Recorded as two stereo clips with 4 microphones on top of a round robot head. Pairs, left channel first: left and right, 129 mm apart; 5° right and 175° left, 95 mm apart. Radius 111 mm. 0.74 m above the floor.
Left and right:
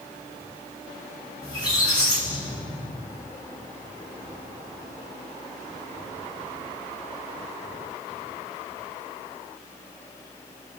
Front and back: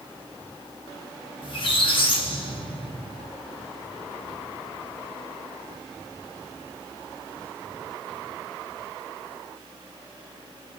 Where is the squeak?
30° left, 1.6 m.